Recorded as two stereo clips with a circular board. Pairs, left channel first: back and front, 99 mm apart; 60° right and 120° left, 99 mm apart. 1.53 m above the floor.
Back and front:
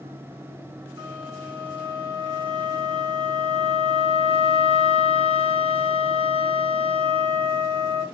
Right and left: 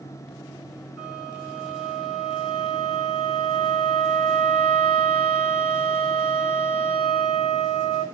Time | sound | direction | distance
1.0 | a flute | 40° left | 5 m